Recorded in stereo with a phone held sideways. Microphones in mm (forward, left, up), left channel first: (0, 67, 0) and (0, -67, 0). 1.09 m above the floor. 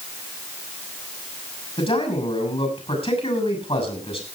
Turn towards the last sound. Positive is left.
turn(degrees=45)  # may be behind; listen again after turning